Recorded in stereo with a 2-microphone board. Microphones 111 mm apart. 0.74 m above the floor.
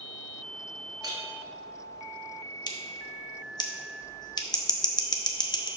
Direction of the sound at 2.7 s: 40° left (ahead or behind).